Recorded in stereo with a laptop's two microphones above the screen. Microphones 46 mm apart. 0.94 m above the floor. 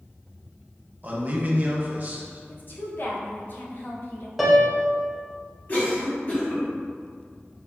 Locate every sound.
1.0 s a man speaking: 40° right (ahead or behind), 0.5 m
2.5 s a woman speaking: 50° left (ahead or behind), 0.5 m
4.4 s a piano: 5° right (ahead or behind), 0.6 m
5.7 s a cough: 45° left (ahead or behind), 1.4 m